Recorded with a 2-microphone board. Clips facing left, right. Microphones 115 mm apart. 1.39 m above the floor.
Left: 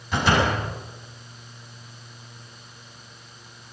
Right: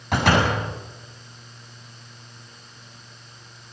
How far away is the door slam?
About 8.5 m.